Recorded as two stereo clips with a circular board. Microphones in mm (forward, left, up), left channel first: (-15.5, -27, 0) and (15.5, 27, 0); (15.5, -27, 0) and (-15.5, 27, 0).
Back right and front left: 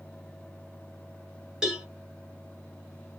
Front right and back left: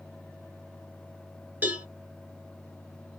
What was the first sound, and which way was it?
A cowbell, 130° left.